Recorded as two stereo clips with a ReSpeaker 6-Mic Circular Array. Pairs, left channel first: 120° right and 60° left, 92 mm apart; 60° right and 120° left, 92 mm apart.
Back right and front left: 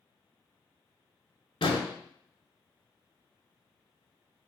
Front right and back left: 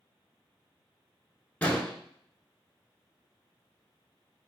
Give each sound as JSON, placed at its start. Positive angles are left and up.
{"t": 1.6, "sound": "an explosion", "azimuth_deg": -135, "distance_m": 0.8}